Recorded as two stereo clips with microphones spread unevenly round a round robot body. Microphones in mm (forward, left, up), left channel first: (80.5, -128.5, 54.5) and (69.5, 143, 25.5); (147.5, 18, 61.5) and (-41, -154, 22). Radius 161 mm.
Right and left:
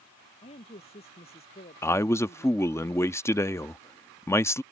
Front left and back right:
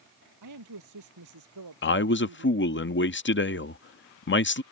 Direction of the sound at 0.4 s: 160° right.